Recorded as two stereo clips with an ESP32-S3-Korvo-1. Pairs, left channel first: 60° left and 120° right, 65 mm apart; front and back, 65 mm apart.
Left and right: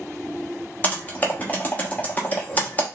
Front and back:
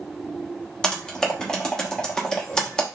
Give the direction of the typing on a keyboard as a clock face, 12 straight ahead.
10 o'clock.